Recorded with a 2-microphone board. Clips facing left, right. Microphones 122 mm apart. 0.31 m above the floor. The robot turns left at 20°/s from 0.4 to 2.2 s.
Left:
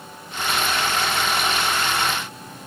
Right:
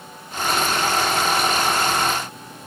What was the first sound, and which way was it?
Only background noise.